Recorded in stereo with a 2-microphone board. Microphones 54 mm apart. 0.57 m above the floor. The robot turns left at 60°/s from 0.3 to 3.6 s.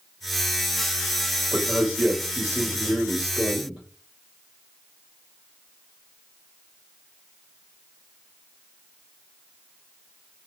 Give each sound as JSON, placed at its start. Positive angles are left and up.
{"t": 1.5, "sound": "a man speaking", "azimuth_deg": -10, "distance_m": 1.3}